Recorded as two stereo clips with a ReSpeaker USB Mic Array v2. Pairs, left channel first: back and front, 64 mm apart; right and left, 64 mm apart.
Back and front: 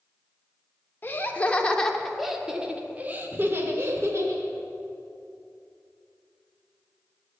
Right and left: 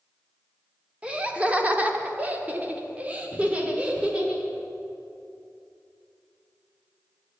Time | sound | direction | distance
1.0 | laughter | 150° left | 1.1 m